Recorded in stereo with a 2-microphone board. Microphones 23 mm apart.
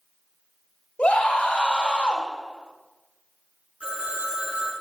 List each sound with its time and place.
1.0 s a scream: 70° left (ahead or behind), 2 m
3.8 s a phone ringing: 70° right (ahead or behind), 5 m